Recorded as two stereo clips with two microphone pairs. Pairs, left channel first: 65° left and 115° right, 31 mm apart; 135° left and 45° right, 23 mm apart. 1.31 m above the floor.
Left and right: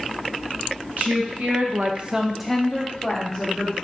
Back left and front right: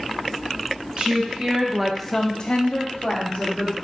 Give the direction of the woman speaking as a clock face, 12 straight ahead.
3 o'clock.